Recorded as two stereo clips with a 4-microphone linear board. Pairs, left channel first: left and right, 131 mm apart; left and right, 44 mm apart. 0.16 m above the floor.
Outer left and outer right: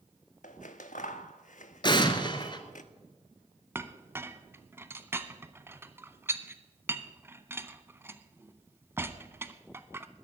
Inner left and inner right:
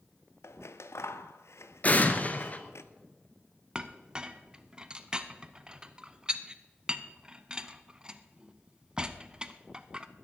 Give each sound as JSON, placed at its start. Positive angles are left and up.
{"t": 0.4, "sound": "scissors", "side_deg": 80, "distance_m": 0.7}
{"t": 1.8, "sound": "an explosion", "side_deg": 35, "distance_m": 1.1}
{"t": 3.8, "sound": "a clink", "side_deg": -20, "distance_m": 0.6}